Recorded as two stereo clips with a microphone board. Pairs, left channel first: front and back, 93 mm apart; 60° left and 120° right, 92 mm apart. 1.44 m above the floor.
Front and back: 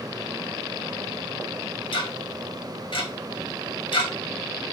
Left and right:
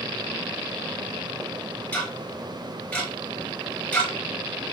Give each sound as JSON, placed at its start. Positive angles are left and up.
{"t": 1.9, "sound": "ticking", "azimuth_deg": -15, "distance_m": 1.2}